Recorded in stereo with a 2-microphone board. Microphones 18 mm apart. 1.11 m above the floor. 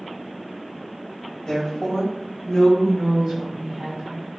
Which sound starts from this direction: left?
A woman speaking, at 1.5 s.